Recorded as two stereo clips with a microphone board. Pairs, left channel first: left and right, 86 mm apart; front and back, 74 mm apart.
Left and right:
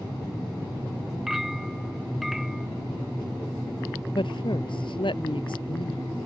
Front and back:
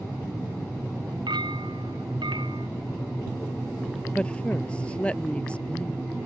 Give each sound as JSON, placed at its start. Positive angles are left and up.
{"t": 1.3, "sound": "a clink", "azimuth_deg": 180}
{"t": 4.2, "sound": "a woman speaking", "azimuth_deg": 75}